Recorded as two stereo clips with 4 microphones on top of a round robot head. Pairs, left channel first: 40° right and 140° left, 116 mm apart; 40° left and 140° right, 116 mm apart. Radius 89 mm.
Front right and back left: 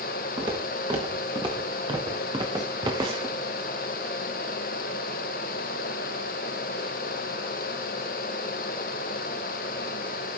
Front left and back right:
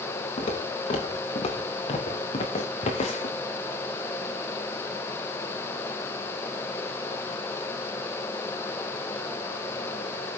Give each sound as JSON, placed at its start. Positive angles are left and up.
{"t": 0.4, "sound": "footsteps", "azimuth_deg": 85, "distance_m": 4.5}